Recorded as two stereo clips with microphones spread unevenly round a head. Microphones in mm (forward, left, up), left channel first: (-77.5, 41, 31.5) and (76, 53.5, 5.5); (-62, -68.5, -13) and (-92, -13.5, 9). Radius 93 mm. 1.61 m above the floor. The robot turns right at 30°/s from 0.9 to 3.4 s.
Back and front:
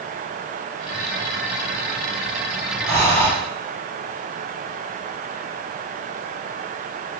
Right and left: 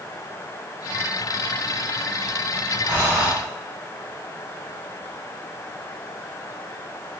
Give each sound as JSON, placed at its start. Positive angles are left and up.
{"t": 2.9, "sound": "breathing", "azimuth_deg": 50, "distance_m": 1.1}